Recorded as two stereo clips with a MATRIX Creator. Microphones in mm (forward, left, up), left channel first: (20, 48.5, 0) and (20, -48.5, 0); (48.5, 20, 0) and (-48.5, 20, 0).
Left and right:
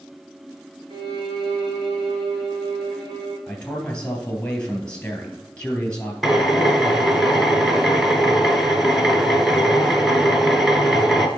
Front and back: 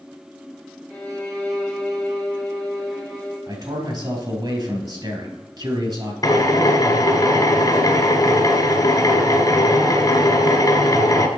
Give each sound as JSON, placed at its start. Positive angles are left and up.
{"t": 0.9, "sound": "a violin", "azimuth_deg": -80, "distance_m": 4.0}
{"t": 3.5, "sound": "a man speaking", "azimuth_deg": 165, "distance_m": 2.0}
{"t": 6.2, "sound": "a drill", "azimuth_deg": -5, "distance_m": 1.1}